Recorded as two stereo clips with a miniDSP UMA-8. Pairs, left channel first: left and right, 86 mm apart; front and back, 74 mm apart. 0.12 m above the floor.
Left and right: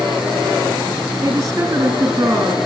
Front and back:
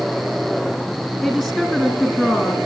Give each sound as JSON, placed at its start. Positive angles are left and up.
{"t": 1.2, "sound": "a woman speaking", "azimuth_deg": -95, "distance_m": 1.9}